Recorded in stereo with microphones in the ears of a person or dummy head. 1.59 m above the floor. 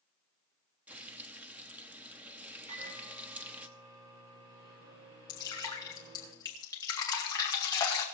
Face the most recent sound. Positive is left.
turn(degrees=20)  # may be behind; listen again after turning